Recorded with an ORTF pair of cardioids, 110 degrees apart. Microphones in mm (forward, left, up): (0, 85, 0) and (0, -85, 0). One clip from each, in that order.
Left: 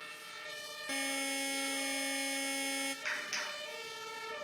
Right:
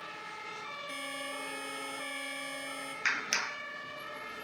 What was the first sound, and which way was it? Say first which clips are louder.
A buzzer: left 6 dB; 40° left.